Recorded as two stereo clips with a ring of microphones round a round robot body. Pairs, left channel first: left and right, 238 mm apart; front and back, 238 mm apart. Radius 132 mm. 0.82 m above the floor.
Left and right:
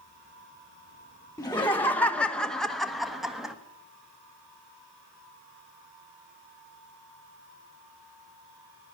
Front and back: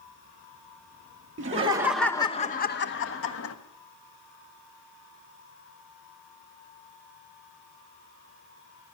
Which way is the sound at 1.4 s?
165° left.